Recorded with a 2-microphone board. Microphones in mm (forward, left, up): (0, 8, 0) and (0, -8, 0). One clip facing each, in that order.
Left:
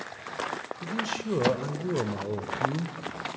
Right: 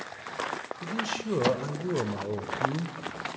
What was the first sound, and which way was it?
A man speaking, 5° right (ahead or behind).